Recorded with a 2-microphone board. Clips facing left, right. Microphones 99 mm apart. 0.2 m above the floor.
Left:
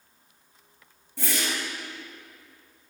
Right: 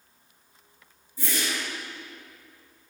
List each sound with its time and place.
1.2 s a whoosh: 85° left, 3 m